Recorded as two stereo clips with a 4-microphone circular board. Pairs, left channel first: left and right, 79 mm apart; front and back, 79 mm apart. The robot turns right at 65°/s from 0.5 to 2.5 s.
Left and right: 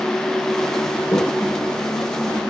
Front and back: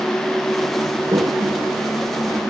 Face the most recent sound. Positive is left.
turn(degrees=-125)